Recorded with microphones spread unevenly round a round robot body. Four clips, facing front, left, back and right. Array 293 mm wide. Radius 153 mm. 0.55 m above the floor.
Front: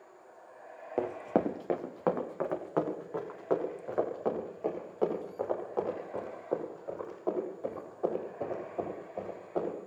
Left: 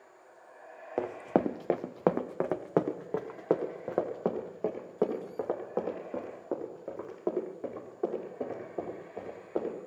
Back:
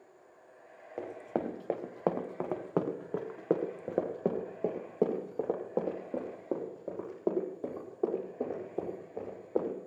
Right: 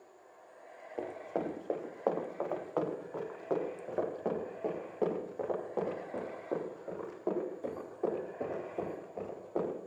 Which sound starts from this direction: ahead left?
Running footsteps, at 1.0 s.